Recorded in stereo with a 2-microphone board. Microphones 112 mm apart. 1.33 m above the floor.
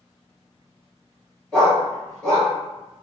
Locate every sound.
1.5 s a dog barking: 10° left (ahead or behind), 1.6 m